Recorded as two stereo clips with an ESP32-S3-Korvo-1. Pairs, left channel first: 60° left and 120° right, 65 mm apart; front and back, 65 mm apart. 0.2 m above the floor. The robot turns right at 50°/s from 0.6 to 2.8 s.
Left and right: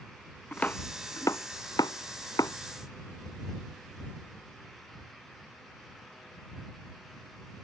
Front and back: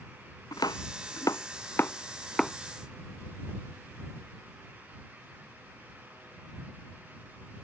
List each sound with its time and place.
0.5 s chopping: 5° right; by 2.5 s 90° left